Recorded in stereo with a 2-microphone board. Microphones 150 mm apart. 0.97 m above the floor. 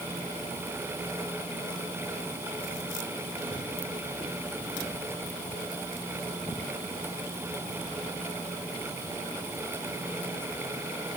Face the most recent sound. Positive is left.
No sound to turn to.